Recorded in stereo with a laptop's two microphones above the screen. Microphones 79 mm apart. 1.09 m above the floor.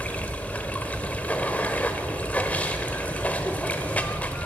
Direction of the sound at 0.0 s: 20° left (ahead or behind).